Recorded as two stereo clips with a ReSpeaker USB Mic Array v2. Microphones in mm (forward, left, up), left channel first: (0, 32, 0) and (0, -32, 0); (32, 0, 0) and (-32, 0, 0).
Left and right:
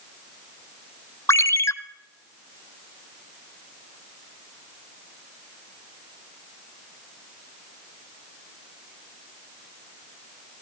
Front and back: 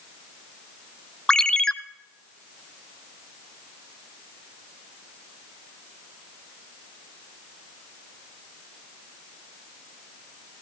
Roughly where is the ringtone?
Left.